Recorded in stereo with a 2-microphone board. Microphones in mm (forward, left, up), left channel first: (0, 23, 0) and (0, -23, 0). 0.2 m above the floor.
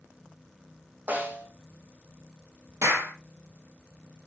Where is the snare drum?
35° right (ahead or behind), 4 m.